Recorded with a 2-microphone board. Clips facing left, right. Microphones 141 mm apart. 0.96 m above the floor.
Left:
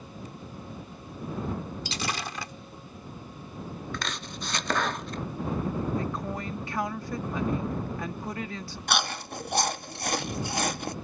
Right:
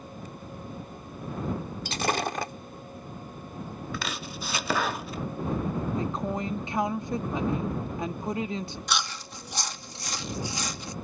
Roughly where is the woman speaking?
Right.